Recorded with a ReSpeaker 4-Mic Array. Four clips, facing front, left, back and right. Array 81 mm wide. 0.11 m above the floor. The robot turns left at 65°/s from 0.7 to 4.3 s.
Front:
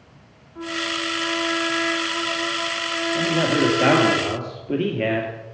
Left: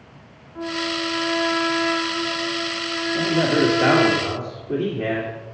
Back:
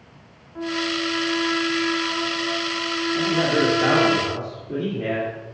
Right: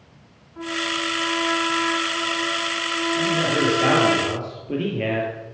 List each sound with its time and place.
0.6 s a trumpet: 135° left, 3.5 m; by 4.2 s 90° right, 3.5 m
3.1 s a man speaking: 55° left, 2 m; by 5.3 s 20° right, 2 m